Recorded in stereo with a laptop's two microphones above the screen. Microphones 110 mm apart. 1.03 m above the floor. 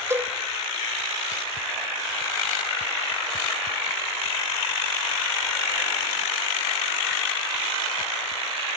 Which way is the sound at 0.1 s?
25° right (ahead or behind).